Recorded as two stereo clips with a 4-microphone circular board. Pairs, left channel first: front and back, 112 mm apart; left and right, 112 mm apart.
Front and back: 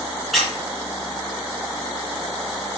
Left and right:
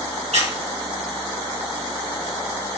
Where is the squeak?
90° right, 3.5 m.